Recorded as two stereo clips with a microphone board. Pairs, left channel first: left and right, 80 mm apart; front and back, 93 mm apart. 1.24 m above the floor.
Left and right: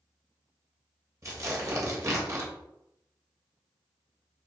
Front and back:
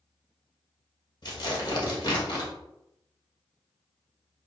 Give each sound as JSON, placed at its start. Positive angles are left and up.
{"t": 1.2, "sound": "tearing paper", "azimuth_deg": -40, "distance_m": 1.1}